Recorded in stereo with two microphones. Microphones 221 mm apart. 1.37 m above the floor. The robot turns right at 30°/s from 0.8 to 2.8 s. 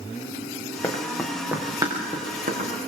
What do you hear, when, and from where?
0.8 s running footsteps: 15° left (ahead or behind), 5 m; by 2.7 s 40° right (ahead or behind), 7.5 m